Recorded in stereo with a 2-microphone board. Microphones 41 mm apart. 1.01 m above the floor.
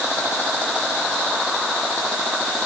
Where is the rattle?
I don't hear a rattle.